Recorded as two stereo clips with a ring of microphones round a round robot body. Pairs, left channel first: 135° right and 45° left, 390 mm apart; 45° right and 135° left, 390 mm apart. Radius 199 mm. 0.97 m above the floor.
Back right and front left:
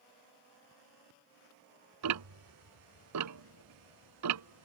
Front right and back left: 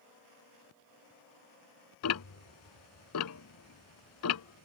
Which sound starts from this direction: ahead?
Ticking, at 2.0 s.